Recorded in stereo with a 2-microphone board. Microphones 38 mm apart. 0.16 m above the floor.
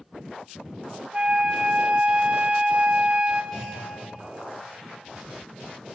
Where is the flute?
35° right (ahead or behind), 0.7 m.